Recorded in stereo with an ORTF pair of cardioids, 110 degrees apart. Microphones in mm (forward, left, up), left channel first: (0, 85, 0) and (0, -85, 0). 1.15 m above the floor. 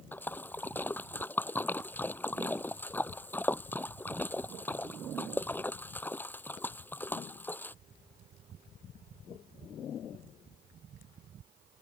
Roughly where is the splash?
Ahead.